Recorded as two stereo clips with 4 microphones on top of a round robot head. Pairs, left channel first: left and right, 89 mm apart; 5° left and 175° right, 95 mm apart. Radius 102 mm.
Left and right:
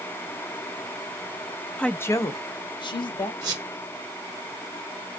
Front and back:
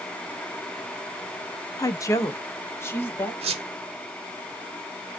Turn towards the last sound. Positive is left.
turn(degrees=-150)